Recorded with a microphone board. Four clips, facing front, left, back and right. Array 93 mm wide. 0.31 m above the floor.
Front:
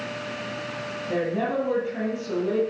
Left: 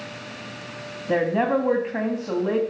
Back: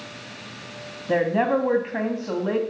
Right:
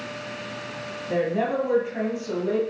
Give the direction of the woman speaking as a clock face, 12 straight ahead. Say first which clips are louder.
Left 3 dB, back 5 dB; 7 o'clock.